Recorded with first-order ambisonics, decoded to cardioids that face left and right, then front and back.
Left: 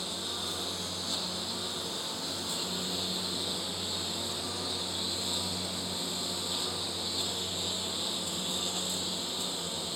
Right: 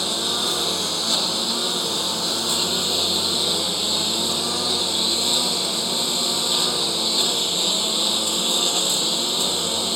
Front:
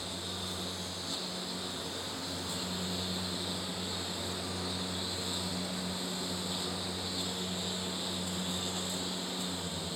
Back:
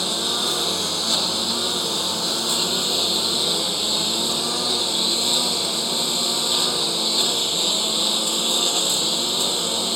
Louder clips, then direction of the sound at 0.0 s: Right 13 dB, back 17 dB; 140° right.